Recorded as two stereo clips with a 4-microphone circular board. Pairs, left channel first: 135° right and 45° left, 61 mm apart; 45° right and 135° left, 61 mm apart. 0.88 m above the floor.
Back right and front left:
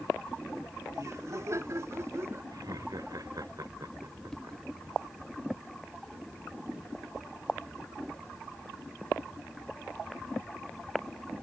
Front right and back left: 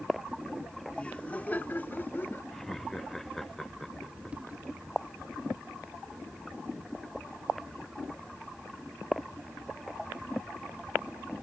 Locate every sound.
0.9 s laughter: 25° left; by 2.4 s 5° left
2.5 s laughter: 40° left